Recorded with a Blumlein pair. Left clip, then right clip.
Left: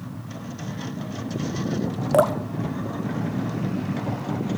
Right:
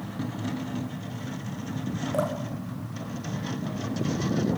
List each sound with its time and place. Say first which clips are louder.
2.1 s dripping: left 10 dB; 60° left, 0.6 m